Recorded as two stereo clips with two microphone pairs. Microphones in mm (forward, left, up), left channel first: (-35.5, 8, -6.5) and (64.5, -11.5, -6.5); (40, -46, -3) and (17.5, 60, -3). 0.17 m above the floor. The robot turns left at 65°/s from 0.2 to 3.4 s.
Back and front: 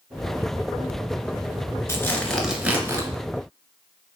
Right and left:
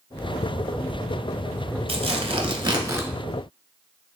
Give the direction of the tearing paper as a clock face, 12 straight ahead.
8 o'clock.